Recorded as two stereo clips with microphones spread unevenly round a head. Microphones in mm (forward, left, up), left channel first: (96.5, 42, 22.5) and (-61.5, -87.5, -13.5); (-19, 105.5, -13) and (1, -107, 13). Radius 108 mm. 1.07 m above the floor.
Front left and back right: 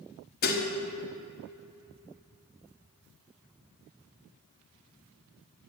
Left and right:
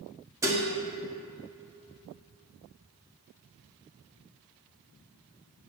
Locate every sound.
0.4 s dishes clattering: 5° right, 1.2 m